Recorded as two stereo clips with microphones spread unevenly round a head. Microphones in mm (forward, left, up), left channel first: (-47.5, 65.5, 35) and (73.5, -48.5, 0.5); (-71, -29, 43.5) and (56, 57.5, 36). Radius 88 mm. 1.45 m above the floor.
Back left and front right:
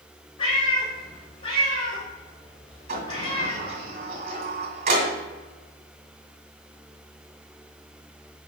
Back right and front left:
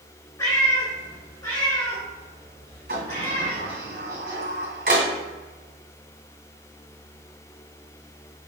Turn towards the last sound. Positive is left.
turn(degrees=5)